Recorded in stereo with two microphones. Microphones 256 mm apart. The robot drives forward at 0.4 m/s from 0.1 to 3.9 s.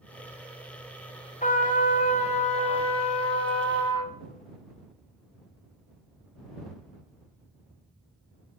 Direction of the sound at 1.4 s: 30° left (ahead or behind).